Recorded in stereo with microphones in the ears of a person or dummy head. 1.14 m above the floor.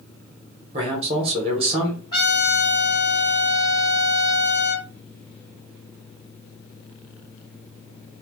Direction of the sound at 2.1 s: 30° left (ahead or behind).